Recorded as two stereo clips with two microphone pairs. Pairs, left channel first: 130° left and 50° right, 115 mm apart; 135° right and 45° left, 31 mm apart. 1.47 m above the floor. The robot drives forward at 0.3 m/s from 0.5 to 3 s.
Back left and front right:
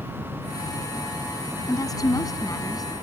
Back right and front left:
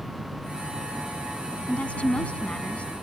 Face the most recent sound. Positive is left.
turn(degrees=-175)